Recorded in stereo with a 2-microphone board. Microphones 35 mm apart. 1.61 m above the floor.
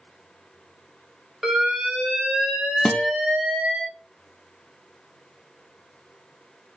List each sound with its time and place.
1.4 s an alarm: 10° right (ahead or behind), 4 m
2.9 s a guitar: 40° left (ahead or behind), 1.1 m